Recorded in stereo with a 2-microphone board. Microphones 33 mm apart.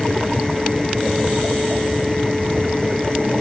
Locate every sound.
Only background noise.